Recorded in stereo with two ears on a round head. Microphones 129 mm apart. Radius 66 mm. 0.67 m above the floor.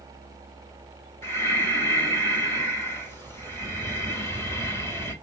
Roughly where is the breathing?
Centre.